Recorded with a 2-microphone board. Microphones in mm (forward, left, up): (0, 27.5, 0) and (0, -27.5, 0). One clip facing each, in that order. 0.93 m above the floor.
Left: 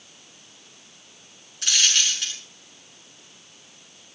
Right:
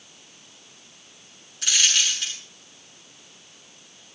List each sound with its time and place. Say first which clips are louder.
1.6 s a dropped coin: even; centre (ahead or behind), 6 m